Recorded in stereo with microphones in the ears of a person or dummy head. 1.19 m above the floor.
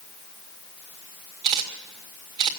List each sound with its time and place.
1.4 s a camera shutter: 40° right (ahead or behind), 2 m